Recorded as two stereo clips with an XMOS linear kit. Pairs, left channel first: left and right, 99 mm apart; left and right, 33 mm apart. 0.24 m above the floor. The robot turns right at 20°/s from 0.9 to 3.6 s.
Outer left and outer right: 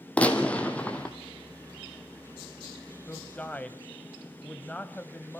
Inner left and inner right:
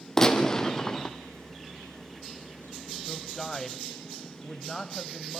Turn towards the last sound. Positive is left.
turn(degrees=15)  # may be behind; listen again after turning